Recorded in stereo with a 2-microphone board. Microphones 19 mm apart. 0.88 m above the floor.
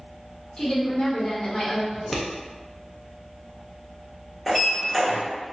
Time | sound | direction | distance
0.6 | a woman speaking | 60° left (ahead or behind) | 1.1 m
1.9 | scissors | 5° left (ahead or behind) | 0.6 m
4.5 | a sliding door | 20° left (ahead or behind) | 1.2 m